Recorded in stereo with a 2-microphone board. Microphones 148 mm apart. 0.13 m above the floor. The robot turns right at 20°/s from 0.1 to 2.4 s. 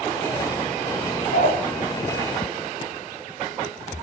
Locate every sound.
1.3 s a dog barking: 70° left (ahead or behind), 6.5 m; by 1.6 s 75° left (ahead or behind), 6.5 m